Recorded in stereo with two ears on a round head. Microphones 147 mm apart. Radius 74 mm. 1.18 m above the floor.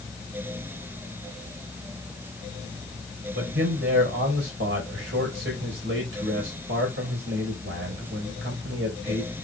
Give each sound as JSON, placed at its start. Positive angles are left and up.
{"t": 3.3, "sound": "a man speaking", "side_deg": -75, "distance_m": 4.5}